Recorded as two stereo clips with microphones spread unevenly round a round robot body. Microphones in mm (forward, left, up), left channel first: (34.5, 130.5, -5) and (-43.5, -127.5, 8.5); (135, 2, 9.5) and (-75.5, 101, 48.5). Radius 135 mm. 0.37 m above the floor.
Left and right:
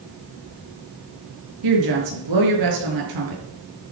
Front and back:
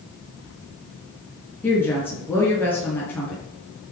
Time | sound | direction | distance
1.6 | a woman speaking | 105° right | 6 m